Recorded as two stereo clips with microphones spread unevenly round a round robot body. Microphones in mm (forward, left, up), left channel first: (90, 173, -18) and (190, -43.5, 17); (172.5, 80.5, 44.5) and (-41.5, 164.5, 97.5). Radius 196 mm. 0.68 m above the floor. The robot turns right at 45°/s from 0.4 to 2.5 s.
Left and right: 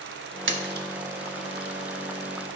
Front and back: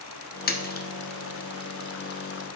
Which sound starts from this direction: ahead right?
A splash, at 0.5 s.